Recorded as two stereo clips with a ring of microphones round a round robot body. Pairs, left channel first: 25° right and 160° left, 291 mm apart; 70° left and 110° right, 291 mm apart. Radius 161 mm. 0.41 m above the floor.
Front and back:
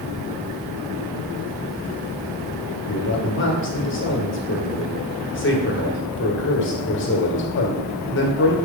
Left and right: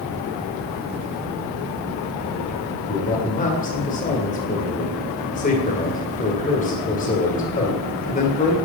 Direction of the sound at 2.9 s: 10° left.